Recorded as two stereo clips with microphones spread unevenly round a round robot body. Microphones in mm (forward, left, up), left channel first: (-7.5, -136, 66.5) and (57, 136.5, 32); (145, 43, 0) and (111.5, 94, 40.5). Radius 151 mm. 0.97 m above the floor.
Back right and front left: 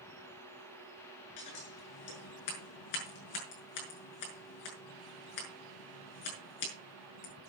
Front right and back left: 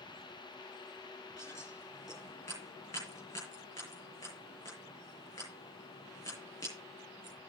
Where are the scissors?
130° right, 6.5 m.